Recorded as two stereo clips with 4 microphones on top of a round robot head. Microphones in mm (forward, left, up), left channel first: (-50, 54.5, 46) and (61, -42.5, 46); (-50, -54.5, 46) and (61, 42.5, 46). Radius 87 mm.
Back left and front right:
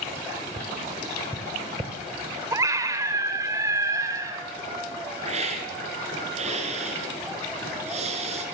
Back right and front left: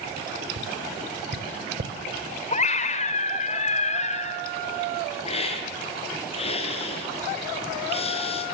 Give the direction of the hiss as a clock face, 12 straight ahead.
3 o'clock.